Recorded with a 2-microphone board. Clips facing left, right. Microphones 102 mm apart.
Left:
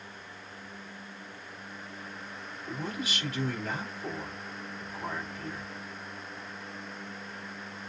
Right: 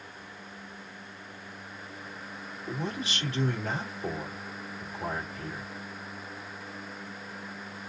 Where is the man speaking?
30° right (ahead or behind), 3 m.